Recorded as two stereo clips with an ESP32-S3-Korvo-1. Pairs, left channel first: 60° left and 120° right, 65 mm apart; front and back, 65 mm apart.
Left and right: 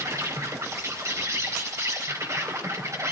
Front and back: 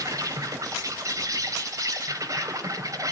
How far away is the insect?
About 4 m.